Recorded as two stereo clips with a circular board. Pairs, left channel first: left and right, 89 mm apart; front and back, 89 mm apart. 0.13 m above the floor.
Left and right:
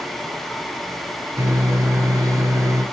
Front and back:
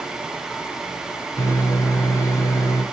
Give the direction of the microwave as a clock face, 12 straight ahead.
1 o'clock.